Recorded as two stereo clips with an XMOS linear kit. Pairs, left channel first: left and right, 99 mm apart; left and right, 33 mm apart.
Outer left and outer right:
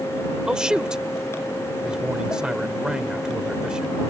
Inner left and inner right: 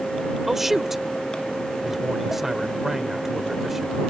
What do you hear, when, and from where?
0.5 s a man speaking: 5° right (ahead or behind)